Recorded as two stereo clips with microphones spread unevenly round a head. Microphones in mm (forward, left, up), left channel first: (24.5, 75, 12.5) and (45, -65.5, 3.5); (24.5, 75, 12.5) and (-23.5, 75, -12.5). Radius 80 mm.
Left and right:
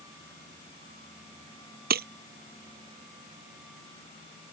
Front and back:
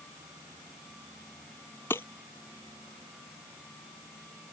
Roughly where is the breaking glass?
Ahead right.